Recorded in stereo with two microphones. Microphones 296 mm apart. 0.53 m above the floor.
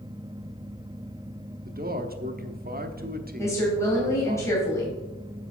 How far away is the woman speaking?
About 2.5 m.